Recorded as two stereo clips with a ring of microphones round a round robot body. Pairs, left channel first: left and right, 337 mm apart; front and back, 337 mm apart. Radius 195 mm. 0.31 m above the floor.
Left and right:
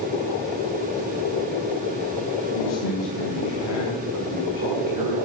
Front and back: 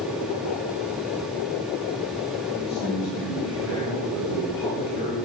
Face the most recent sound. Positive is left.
turn(degrees=30)